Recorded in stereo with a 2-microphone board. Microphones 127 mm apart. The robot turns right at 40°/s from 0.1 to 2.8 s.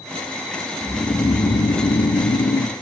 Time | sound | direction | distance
0.8 | snoring | 25° left | 1.6 m